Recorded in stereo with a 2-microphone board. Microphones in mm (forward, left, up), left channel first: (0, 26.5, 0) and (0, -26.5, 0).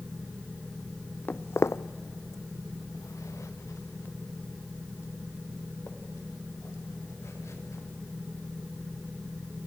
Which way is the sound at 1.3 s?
35° left (ahead or behind).